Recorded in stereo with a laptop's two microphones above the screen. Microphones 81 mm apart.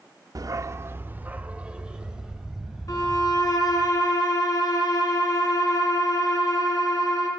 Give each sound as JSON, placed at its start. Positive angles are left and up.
{"t": 0.3, "sound": "a dog barking", "side_deg": -50, "distance_m": 0.7}
{"t": 2.9, "sound": "a violin", "side_deg": 50, "distance_m": 3.0}